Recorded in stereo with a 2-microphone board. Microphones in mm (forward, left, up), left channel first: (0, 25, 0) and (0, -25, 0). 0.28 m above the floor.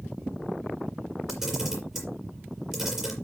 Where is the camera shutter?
10° right (ahead or behind), 5 m.